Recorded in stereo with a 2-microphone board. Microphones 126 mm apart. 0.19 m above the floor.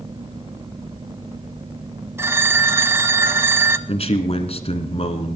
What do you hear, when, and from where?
2.2 s a phone ringing: 20° right (ahead or behind), 0.7 m
3.9 s a man speaking: 50° left (ahead or behind), 1.7 m